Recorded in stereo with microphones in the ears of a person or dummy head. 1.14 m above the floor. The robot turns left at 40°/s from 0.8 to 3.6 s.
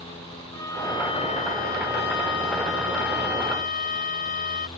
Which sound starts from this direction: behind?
A violin, at 0.5 s.